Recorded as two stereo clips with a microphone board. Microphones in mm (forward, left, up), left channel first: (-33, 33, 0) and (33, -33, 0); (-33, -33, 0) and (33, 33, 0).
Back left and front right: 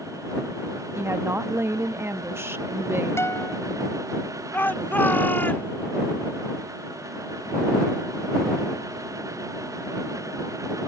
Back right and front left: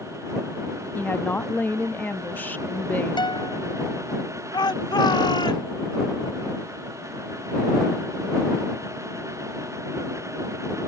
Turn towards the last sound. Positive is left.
turn(degrees=-160)